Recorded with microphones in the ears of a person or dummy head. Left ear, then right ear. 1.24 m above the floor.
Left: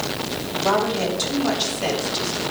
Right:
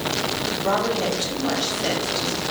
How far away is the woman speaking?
About 7 m.